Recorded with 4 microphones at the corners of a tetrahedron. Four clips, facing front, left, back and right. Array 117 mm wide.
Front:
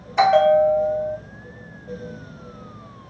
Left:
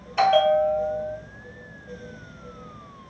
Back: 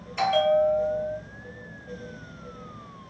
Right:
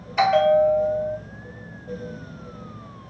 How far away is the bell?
About 0.6 m.